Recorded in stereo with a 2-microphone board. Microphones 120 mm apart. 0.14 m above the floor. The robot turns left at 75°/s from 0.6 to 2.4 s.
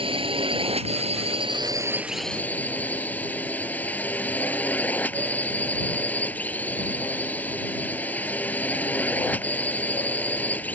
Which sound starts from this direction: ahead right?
A drone, at 0.0 s.